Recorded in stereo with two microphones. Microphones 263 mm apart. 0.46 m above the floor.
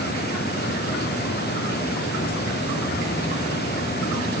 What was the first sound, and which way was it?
Only background noise.